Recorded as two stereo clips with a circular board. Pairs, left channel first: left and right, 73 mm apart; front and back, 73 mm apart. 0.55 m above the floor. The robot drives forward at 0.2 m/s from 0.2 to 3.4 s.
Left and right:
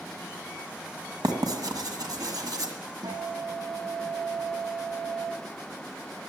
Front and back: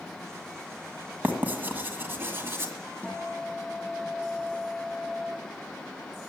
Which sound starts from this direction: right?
A guitar, at 3.0 s.